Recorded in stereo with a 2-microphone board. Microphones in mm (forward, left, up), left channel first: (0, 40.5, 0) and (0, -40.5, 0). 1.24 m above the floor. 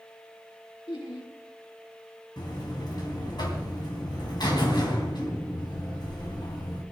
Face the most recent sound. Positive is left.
turn(degrees=60)  # may be behind; listen again after turning